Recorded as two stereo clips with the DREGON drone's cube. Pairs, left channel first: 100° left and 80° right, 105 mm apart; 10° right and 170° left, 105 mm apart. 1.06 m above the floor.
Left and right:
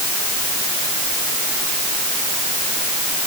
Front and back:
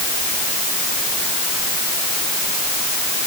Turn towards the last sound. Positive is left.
No sound to turn to.